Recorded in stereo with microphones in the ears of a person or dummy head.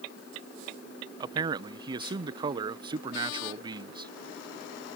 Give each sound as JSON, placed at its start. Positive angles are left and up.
{"t": 1.2, "sound": "a man speaking", "side_deg": -30}